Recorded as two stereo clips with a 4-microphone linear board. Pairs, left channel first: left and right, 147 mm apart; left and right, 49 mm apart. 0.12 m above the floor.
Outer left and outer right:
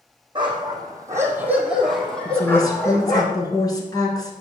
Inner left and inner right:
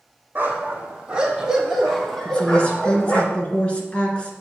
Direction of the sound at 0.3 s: 35° right (ahead or behind).